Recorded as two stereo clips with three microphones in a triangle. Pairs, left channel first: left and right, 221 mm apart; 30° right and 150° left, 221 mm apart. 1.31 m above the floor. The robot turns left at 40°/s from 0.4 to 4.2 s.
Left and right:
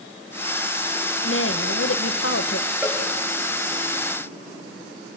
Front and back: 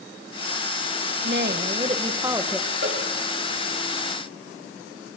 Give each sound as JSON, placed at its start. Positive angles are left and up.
{"t": 1.2, "sound": "a woman speaking", "azimuth_deg": 120, "distance_m": 1.4}
{"t": 2.8, "sound": "a cowbell", "azimuth_deg": -175, "distance_m": 6.5}